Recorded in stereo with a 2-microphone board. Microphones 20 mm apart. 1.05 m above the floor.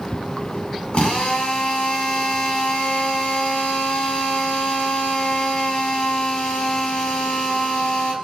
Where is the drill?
55° left (ahead or behind), 7 m.